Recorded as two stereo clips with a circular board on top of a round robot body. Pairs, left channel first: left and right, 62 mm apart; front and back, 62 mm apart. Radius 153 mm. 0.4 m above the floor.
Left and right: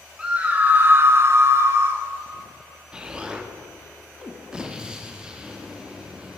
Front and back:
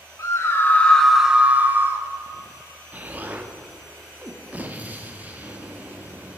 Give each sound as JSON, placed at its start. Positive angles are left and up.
{"t": 0.2, "sound": "a scream", "azimuth_deg": -20, "distance_m": 1.4}
{"t": 2.9, "sound": "an explosion", "azimuth_deg": -150, "distance_m": 1.4}